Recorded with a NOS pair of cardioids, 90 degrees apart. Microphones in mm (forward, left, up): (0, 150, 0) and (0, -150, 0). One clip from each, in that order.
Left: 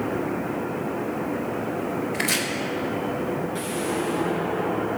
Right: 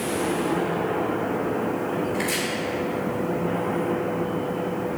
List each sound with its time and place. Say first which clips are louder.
2.1 s chopping: left 1 dB; 35° left, 1.8 m